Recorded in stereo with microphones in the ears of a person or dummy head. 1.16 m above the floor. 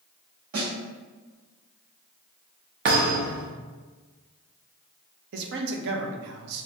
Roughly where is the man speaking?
Right.